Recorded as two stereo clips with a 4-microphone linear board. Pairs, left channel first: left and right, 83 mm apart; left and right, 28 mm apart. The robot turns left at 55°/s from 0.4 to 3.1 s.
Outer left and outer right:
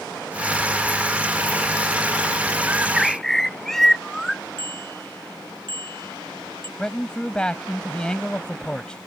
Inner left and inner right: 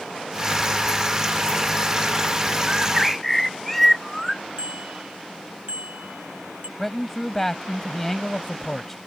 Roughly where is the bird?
Right.